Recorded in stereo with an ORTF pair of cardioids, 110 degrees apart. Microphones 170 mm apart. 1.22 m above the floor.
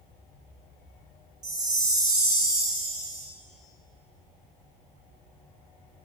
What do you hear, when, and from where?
1.4 s a chime: 25° right, 1.0 m